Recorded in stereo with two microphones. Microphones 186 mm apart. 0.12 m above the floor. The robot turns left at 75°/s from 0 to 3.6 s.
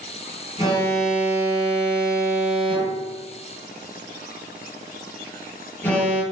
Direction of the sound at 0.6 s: 35° left.